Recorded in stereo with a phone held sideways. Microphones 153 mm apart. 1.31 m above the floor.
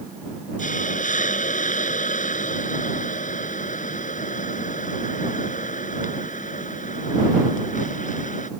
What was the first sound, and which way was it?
A hiss, 60° left (ahead or behind).